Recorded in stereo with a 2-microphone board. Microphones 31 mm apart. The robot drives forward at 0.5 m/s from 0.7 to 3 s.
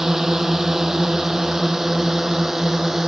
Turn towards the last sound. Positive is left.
turn(degrees=-10)  # may be behind; listen again after turning